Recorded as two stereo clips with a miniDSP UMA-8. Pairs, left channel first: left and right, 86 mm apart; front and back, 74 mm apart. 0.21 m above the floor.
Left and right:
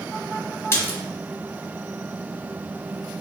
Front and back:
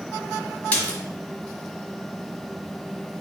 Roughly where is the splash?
Ahead left.